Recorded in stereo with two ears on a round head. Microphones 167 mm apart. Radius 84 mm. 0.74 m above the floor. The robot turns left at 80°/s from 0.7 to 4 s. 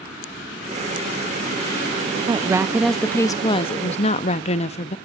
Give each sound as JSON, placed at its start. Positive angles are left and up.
{"t": 2.3, "sound": "a woman speaking", "azimuth_deg": -135, "distance_m": 0.6}